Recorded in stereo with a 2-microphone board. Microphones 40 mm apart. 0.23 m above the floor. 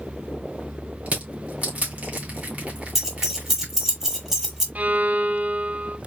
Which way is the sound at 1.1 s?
35° right (ahead or behind).